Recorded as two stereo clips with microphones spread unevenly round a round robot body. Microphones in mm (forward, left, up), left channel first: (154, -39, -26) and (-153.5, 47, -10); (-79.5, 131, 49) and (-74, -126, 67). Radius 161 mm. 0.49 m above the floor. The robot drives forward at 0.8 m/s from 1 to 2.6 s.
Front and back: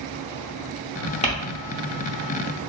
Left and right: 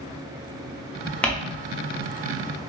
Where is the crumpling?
20° left, 0.6 m; by 1.3 s 30° left, 0.6 m.